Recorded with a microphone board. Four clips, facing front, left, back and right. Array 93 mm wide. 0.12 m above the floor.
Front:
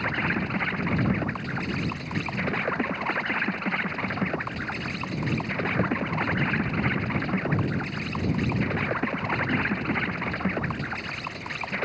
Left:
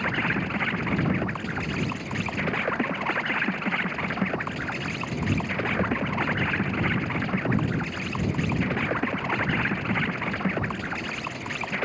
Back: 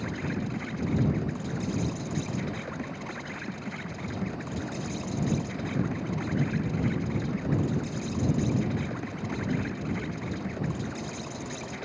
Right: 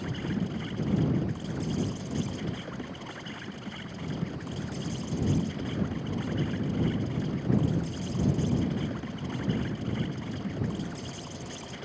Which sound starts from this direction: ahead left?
An insect, at 0.0 s.